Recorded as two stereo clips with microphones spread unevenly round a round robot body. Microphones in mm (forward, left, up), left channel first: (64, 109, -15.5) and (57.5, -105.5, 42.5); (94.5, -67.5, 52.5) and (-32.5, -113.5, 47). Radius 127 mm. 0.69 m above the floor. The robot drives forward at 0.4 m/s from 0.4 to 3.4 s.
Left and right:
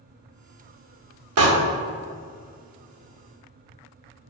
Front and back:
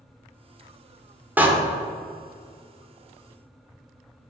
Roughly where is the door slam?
Right.